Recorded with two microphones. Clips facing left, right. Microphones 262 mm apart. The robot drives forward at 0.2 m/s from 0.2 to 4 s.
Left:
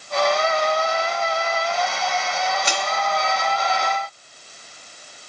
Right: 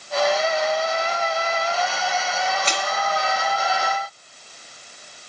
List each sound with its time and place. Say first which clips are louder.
2.6 s crushing: even; 10° left (ahead or behind), 1.2 m; by 2.9 s 15° left (ahead or behind), 1.1 m